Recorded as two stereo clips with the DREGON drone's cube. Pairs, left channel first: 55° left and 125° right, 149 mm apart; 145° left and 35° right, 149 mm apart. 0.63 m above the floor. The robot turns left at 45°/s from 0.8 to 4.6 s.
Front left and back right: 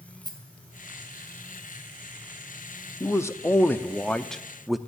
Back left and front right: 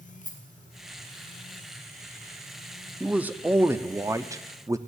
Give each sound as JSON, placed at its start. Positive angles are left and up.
{"t": 0.2, "sound": "a rattle", "azimuth_deg": 115, "distance_m": 3.5}
{"t": 3.0, "sound": "a man speaking", "azimuth_deg": 35, "distance_m": 0.6}